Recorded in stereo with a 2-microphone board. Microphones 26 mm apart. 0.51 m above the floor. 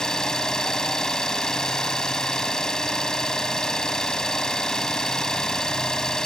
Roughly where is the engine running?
Left.